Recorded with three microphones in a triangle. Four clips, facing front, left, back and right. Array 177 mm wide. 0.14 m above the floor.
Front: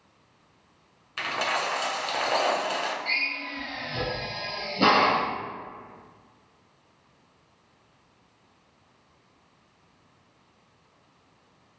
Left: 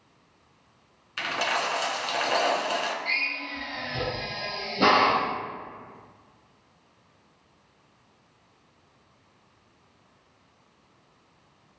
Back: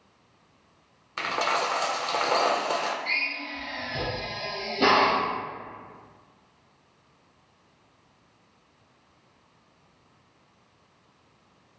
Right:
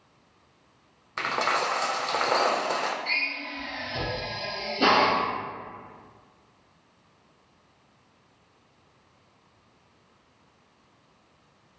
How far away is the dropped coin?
About 0.6 m.